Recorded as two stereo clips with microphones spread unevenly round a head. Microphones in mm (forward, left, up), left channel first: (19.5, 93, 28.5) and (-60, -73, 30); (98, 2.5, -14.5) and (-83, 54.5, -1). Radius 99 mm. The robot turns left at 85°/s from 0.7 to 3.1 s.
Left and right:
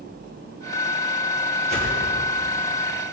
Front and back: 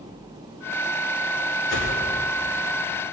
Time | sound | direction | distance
1.7 | a whoosh | 60° right | 5.5 m